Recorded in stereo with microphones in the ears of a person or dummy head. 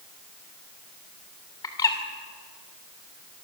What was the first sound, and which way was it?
A bird, 20° left (ahead or behind).